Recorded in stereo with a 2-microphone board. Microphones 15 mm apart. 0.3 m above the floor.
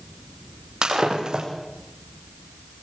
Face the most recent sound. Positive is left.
turn(degrees=-60)  # may be behind; listen again after turning